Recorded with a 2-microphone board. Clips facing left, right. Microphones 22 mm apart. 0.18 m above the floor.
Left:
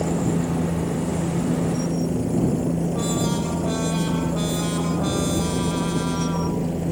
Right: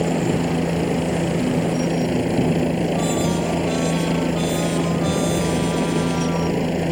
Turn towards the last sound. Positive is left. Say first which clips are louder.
# right 3 dB
turn(degrees=-55)  # may be behind; listen again after turning